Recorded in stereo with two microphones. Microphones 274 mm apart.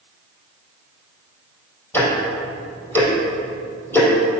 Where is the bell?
No bell in this recording.